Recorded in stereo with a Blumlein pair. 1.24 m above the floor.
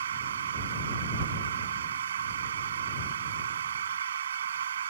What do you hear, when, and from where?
0.0 s a machine running: 65° right